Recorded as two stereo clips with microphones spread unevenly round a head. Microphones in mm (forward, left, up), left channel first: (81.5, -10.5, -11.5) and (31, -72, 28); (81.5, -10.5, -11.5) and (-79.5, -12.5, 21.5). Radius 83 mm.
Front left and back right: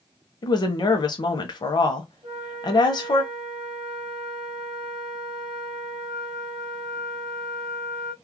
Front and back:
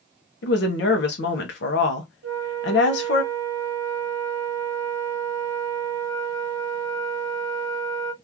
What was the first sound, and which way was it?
A woman speaking, 5° left.